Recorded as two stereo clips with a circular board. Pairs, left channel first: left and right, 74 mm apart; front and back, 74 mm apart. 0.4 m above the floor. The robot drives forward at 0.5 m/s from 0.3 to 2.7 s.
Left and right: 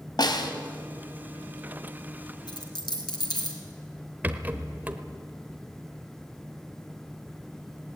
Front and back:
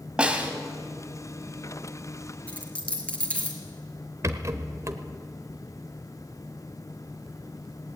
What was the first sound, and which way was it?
A snare drum, 105° left.